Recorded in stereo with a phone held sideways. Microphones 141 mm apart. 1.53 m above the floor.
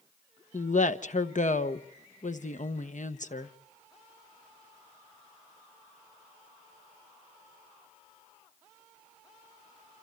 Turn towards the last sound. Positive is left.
turn(degrees=65)  # may be behind; listen again after turning